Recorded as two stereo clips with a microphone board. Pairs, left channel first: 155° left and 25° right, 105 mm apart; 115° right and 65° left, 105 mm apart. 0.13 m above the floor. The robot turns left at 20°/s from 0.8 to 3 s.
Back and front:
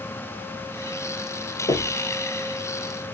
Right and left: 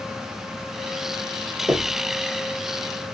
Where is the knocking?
135° left, 1.3 m; by 2.0 s 125° left, 1.3 m.